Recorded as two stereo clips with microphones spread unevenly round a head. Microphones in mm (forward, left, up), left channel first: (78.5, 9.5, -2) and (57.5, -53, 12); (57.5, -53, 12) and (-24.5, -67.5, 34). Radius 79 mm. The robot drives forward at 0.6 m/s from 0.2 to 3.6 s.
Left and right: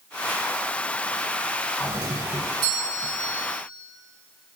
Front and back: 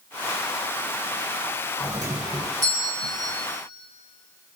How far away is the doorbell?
About 2.0 m.